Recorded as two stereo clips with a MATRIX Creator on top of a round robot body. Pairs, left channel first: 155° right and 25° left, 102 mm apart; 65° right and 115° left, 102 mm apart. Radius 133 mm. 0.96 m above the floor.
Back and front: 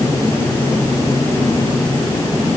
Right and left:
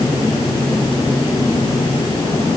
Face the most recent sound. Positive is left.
No sound to turn to.